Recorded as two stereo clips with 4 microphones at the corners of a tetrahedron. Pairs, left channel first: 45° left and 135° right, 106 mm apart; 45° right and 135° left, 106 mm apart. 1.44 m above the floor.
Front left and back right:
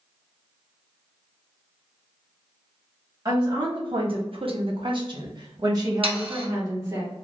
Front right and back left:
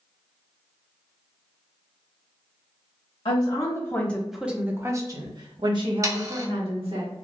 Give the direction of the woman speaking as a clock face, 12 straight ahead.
3 o'clock.